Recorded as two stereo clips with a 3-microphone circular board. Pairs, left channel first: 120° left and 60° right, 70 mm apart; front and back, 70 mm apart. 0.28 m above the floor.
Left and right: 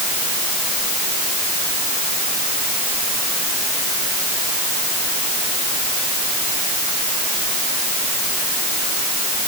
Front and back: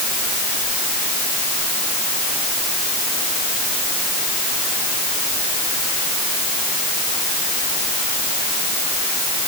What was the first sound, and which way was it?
Only background noise.